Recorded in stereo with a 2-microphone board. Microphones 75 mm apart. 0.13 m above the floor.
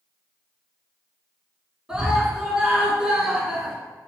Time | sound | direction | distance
1.9 | a scream | 10° right (ahead or behind) | 1.3 m